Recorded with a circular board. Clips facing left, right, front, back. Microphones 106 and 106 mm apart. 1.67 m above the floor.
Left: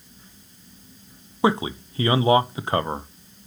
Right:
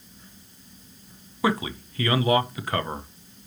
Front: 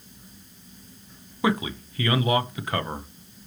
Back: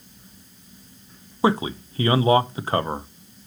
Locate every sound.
1.4 s a man speaking: 140° left, 0.8 m